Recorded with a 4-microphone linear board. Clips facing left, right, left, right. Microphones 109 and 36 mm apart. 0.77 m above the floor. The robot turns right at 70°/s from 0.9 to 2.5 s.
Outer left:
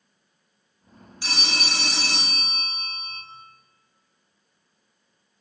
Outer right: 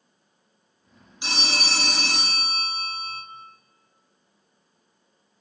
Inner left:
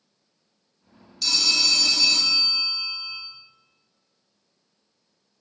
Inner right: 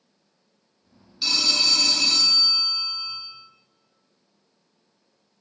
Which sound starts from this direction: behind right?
A phone ringing, at 1.2 s.